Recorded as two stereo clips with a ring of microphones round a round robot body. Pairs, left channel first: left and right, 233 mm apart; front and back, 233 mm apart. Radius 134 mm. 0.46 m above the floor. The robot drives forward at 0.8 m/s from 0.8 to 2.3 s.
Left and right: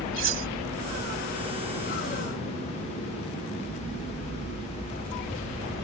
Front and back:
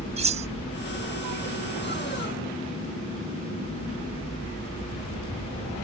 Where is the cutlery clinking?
120° right.